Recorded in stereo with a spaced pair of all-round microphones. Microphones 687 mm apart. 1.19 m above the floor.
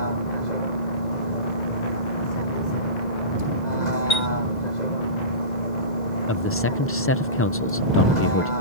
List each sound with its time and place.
0.0 s a vehicle: 85° left
4.1 s a chime: 70° left (ahead or behind)
6.3 s a man speaking: 20° left (ahead or behind)